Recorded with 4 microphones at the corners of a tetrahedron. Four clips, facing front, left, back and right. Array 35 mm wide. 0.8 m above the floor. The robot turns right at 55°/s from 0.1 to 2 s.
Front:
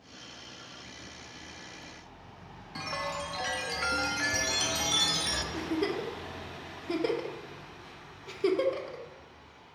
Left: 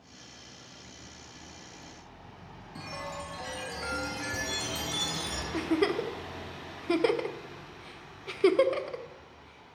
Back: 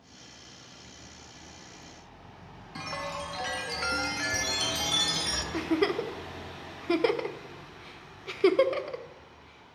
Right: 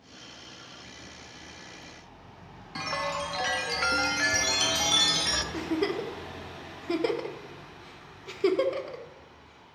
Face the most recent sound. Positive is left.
turn(degrees=155)